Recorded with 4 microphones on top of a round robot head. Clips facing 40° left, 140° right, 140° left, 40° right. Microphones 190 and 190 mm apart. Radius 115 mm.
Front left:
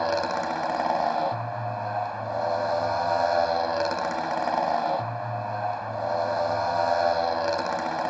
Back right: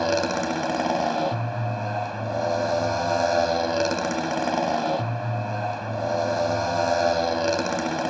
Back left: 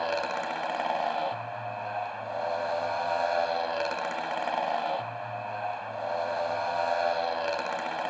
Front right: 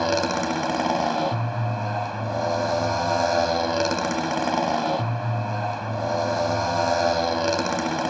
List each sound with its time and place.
0.0 s a motorcycle: 80° right